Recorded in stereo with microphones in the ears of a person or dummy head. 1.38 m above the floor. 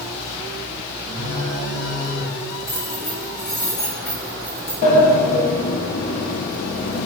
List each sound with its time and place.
1.1 s a phone buzzing: 75° left (ahead or behind), 2.5 m
2.7 s keys jangling: 15° left (ahead or behind), 0.5 m
4.8 s a sliding door: 45° left (ahead or behind), 0.7 m